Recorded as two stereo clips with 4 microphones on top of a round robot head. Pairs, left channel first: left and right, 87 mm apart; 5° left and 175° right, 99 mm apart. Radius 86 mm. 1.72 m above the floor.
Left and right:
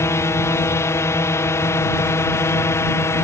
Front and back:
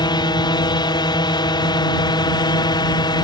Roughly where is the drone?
Ahead left.